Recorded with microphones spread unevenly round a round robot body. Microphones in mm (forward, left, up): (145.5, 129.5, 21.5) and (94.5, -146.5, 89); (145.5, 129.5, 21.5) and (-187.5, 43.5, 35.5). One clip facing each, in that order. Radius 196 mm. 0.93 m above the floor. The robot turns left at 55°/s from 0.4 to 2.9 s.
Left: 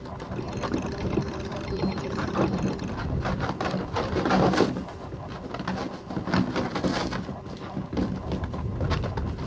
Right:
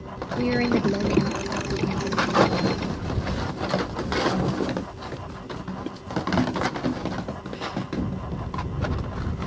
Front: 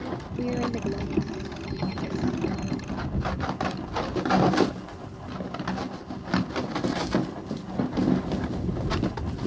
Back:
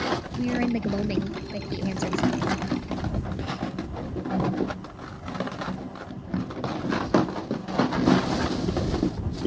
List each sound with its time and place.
0.4 s a woman speaking: 95° right; by 2.7 s 140° left